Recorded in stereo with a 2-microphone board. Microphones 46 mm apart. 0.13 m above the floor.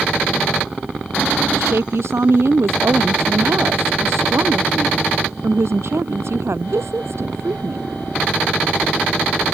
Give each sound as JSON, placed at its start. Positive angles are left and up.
{"t": 1.5, "sound": "a woman speaking", "side_deg": -70}